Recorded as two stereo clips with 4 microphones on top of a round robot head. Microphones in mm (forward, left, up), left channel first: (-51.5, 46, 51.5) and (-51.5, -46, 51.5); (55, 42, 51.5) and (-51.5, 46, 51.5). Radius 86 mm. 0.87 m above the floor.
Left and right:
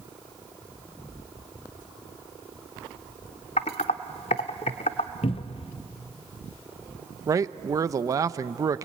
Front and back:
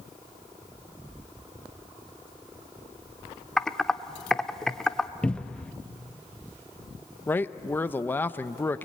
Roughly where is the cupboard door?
Left.